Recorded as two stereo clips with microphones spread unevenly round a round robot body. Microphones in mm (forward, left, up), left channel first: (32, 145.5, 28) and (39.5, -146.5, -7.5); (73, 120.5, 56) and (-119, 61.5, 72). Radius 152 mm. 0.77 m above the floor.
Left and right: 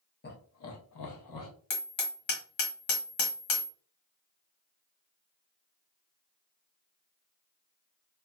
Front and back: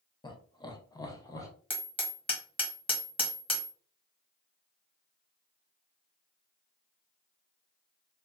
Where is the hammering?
85° left, 1.4 m.